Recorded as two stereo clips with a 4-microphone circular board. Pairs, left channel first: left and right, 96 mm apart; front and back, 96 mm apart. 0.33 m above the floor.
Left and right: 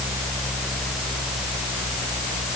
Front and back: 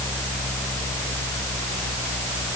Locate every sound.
Only background noise.